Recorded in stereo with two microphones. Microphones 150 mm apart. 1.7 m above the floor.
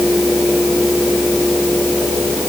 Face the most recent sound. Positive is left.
No sound to turn to.